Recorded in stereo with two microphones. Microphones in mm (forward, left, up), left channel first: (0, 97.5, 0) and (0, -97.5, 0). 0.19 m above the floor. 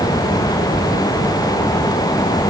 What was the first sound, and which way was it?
Only background noise.